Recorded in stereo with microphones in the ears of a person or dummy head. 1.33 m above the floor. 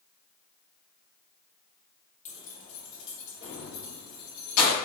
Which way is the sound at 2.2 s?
40° left (ahead or behind).